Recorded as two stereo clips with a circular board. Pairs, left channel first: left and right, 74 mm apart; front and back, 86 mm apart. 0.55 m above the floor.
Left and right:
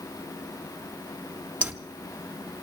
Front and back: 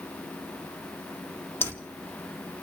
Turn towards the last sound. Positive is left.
turn(degrees=-40)